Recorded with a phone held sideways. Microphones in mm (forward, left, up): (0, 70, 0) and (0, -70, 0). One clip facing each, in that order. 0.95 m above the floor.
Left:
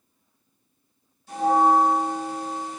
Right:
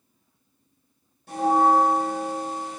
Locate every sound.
1.3 s a bell: 60° right (ahead or behind), 1.9 m